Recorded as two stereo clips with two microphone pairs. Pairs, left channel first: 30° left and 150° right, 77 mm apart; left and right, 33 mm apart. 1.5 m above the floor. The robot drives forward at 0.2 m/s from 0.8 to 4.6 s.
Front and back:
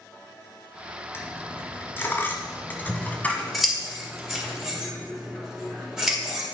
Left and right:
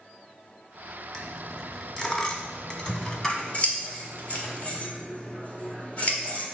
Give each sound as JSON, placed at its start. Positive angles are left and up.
{"t": 1.1, "sound": "a dropped coin", "azimuth_deg": 50, "distance_m": 1.5}
{"t": 2.9, "sound": "scissors", "azimuth_deg": 120, "distance_m": 1.6}